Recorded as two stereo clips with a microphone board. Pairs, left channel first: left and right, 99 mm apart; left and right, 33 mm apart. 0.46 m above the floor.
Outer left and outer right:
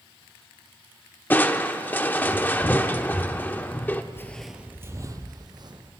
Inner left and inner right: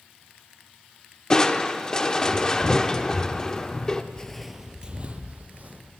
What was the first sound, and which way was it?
Crushing, 20° left (ahead or behind).